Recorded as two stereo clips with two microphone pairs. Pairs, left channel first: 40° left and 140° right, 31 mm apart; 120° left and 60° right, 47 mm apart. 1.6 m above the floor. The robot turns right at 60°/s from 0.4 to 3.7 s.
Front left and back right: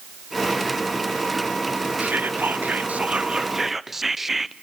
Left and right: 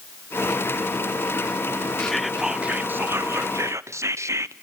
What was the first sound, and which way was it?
Whispering, 165° right.